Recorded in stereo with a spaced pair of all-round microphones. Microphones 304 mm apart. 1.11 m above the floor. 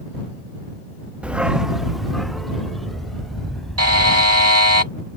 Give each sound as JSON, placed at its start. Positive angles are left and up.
{"t": 1.2, "sound": "a dog barking", "side_deg": -5}
{"t": 3.8, "sound": "a buzzer", "side_deg": -55}